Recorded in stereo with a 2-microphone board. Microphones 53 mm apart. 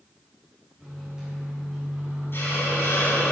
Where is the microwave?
10° right (ahead or behind), 3 m.